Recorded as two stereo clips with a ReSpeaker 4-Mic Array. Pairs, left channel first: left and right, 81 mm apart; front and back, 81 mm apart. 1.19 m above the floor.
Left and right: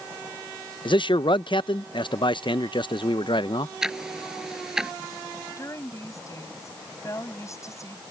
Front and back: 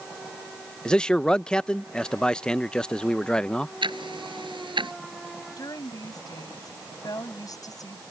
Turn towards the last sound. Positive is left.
turn(degrees=40)